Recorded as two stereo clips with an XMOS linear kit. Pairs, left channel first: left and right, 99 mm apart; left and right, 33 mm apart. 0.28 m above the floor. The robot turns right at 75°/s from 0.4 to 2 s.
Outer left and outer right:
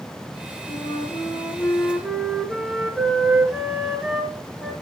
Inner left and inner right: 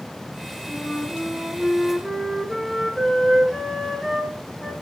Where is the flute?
85° left, 4.5 m; by 4.7 s 175° right, 4.5 m.